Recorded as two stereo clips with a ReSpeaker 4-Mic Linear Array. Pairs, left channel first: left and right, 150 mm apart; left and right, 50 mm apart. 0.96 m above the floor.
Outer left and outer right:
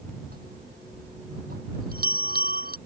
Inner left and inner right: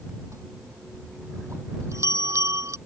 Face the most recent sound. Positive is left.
turn(degrees=-80)